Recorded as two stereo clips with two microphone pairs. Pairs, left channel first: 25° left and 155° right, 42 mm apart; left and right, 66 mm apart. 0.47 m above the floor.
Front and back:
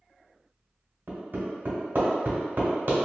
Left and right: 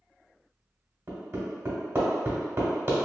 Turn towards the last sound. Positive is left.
turn(degrees=-125)